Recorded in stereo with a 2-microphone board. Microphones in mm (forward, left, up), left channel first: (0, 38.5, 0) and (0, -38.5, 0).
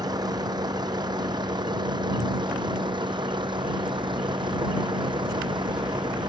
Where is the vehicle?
60° right (ahead or behind); by 6.3 s 75° right (ahead or behind).